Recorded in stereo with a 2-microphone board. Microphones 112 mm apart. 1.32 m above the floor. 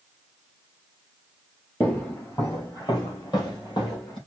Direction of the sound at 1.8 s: 15° left (ahead or behind).